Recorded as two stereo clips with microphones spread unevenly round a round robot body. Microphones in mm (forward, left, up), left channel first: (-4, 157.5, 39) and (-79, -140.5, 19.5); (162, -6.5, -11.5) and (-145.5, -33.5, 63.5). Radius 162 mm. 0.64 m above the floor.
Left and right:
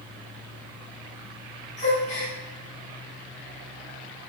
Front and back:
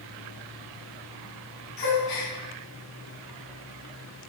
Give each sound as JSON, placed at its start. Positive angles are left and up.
{"t": 1.8, "sound": "a gasp", "azimuth_deg": 5, "distance_m": 3.5}